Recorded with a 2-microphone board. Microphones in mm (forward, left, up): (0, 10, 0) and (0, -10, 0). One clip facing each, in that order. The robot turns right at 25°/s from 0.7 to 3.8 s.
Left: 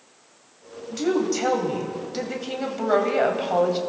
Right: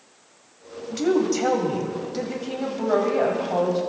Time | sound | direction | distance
0.9 | a woman speaking | 5° right | 2.5 m